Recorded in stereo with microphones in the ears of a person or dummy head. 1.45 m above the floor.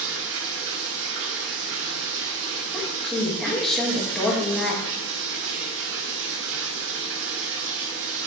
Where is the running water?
60° right (ahead or behind), 0.9 m.